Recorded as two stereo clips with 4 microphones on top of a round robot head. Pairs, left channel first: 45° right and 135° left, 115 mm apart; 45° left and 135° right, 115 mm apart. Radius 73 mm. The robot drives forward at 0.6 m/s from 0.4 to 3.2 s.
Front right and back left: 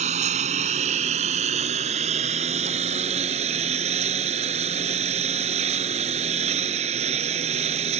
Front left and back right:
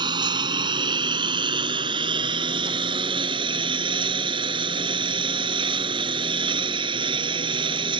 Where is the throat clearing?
I don't hear throat clearing.